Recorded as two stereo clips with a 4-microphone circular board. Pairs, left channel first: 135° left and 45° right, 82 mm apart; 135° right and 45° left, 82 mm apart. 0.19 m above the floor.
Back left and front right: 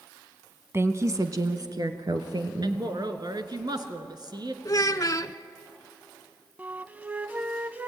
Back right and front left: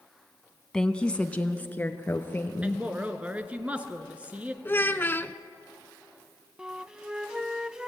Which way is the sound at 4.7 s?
165° left.